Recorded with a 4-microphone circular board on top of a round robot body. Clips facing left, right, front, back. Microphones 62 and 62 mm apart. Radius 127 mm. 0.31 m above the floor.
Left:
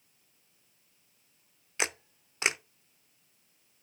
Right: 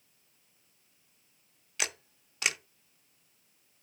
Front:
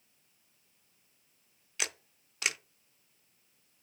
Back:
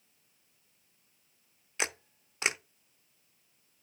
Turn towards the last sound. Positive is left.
turn(degrees=135)